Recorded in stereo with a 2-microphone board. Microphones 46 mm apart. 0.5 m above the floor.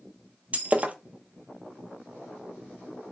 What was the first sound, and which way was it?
Breaking glass, 30° right (ahead or behind).